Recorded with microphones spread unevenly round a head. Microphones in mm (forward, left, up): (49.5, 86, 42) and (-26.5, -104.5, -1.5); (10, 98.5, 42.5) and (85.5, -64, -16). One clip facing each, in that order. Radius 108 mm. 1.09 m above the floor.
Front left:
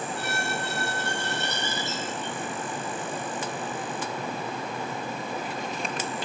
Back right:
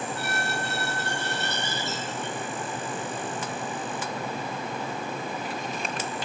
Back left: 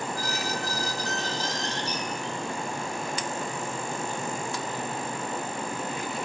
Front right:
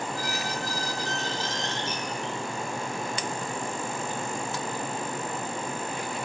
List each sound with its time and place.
0.1 s a squeak: 70° left, 8.5 m